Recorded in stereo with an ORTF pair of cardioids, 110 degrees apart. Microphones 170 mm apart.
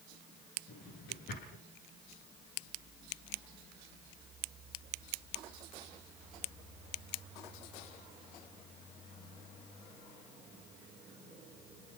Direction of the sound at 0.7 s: 65° left.